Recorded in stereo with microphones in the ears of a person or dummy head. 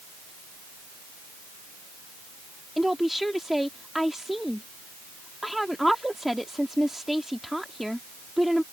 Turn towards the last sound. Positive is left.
turn(degrees=-5)  # may be behind; listen again after turning